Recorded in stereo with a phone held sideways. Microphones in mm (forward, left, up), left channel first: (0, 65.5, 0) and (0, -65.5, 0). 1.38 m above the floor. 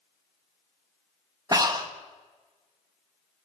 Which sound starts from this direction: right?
Breathing, at 1.5 s.